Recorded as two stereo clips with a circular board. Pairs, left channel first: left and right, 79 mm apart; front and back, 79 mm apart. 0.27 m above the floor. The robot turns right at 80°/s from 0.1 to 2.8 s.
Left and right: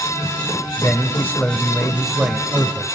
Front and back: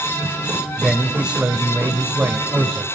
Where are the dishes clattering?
No dishes clattering in this recording.